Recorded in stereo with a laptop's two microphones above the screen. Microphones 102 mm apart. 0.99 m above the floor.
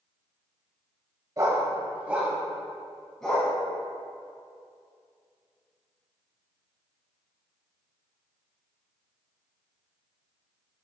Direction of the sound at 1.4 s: 35° right (ahead or behind).